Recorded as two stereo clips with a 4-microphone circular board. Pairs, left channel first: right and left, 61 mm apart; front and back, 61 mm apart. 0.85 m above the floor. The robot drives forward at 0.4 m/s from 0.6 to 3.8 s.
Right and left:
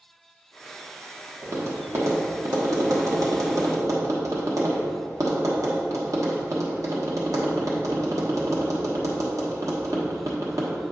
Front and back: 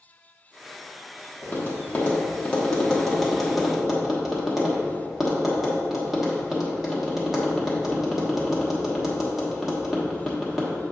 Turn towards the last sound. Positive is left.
turn(degrees=90)